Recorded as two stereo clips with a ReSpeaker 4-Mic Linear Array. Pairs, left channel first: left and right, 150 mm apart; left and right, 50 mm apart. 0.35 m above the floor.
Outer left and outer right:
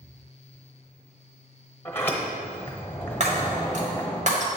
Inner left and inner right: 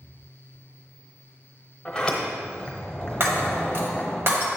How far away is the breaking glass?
About 1.2 m.